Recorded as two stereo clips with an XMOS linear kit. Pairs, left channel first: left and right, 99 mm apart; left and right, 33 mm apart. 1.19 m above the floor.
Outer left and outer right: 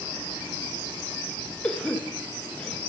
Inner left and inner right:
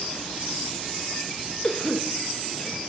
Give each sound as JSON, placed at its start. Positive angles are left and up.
{"t": 1.6, "sound": "a cough", "side_deg": 10, "distance_m": 0.9}